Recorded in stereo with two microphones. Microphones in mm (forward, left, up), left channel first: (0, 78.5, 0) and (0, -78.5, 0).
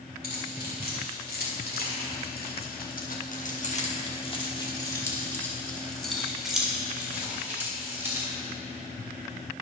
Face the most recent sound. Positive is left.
turn(degrees=-15)  # may be behind; listen again after turning